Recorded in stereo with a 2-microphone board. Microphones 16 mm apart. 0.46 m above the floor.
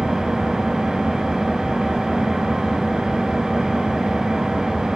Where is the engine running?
75° right (ahead or behind), 3 m.